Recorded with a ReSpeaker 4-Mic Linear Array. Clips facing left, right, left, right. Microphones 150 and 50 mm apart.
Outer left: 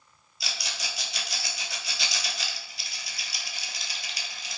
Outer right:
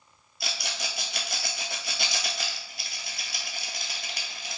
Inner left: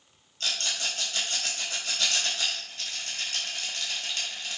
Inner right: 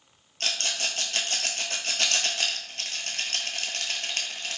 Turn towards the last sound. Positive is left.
turn(degrees=-55)  # may be behind; listen again after turning